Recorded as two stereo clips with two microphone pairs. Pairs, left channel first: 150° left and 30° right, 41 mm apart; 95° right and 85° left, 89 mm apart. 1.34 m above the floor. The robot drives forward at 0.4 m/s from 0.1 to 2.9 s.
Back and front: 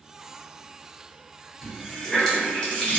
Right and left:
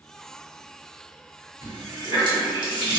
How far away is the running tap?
About 1.0 m.